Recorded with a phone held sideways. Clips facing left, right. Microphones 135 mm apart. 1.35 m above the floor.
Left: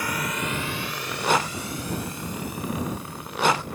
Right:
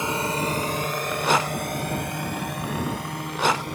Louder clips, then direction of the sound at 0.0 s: Right 4 dB; 25° right (ahead or behind).